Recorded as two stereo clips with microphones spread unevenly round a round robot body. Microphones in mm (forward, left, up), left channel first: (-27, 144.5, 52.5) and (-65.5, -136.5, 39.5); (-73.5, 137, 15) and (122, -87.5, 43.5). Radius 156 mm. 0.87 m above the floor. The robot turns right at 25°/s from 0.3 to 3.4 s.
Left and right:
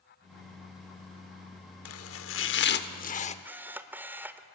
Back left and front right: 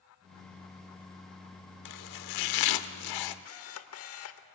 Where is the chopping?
110° left, 0.8 m; by 3.4 s 145° left, 0.8 m.